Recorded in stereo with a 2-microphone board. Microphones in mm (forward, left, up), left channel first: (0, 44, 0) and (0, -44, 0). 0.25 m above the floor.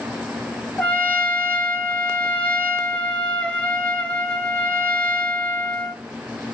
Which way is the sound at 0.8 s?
15° left (ahead or behind).